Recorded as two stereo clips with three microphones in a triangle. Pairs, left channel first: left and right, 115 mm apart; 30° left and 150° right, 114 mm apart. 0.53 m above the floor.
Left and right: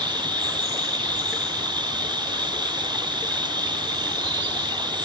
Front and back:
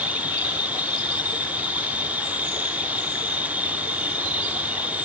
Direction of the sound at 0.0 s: 80° right.